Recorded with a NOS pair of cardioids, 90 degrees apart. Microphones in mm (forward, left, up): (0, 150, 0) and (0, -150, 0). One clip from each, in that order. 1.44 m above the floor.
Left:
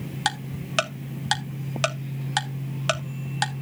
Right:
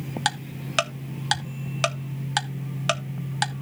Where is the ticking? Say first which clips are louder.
Even; 5° right, 1.2 m.